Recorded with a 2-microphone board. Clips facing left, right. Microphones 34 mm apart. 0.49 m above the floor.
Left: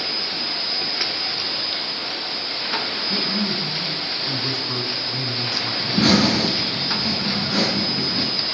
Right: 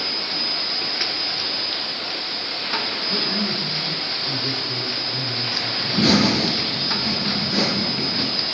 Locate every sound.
3.1 s a man speaking: 75° left (ahead or behind), 4.5 m
5.8 s laughter: 60° left (ahead or behind), 6 m